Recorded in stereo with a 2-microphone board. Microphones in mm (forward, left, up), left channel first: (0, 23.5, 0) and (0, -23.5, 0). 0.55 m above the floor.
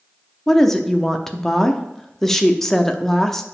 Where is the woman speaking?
10° left (ahead or behind), 0.6 m.